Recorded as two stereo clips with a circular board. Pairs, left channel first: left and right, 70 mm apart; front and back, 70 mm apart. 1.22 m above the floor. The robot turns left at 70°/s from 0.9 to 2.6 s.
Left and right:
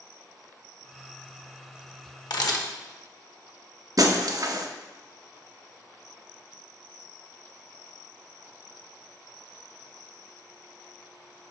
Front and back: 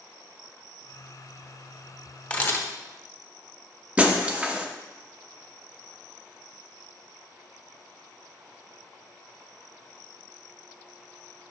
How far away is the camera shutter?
About 0.8 m.